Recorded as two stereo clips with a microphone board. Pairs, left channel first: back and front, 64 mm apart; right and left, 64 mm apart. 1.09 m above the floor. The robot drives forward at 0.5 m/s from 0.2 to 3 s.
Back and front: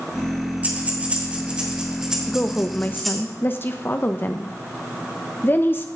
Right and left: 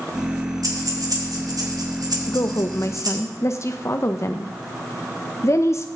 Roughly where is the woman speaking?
Right.